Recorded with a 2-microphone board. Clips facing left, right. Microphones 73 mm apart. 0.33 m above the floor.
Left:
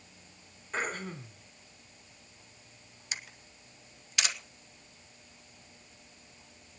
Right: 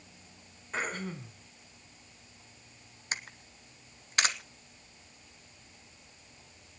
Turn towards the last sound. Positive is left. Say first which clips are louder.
# right 4 dB
turn(degrees=-40)  # may be behind; listen again after turning